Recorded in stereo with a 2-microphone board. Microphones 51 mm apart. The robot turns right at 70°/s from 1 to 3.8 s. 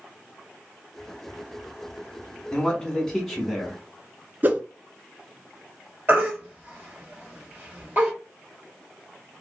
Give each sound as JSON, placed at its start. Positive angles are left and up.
{"t": 2.5, "sound": "a man speaking", "side_deg": 20, "distance_m": 1.1}
{"t": 4.4, "sound": "a whoosh", "side_deg": -40, "distance_m": 0.5}
{"t": 6.1, "sound": "a baby crying", "side_deg": -40, "distance_m": 1.7}